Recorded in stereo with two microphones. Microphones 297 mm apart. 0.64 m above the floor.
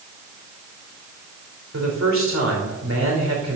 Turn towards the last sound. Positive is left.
turn(degrees=-60)  # may be behind; listen again after turning